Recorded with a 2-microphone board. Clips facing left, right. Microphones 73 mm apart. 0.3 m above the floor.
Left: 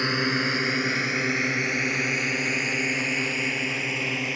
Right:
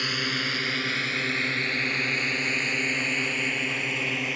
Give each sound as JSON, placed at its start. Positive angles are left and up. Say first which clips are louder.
{"t": 0.0, "sound": "a drone", "louder": "left 5 dB", "side_deg": 25}